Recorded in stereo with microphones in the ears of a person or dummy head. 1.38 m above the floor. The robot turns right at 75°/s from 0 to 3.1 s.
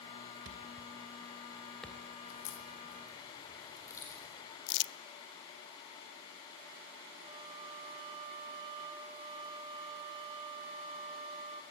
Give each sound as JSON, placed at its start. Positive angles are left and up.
{"t": 0.5, "sound": "a thud", "side_deg": -75, "distance_m": 3.0}
{"t": 2.3, "sound": "a crack", "side_deg": 80, "distance_m": 4.0}
{"t": 4.7, "sound": "crumpling", "side_deg": 60, "distance_m": 0.6}
{"t": 7.2, "sound": "a flute", "side_deg": -25, "distance_m": 4.0}